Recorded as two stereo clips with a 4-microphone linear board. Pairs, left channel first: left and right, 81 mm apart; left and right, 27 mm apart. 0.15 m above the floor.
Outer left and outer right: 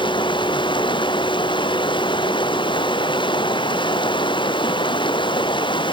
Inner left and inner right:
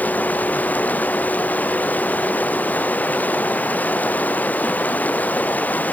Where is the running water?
90° left.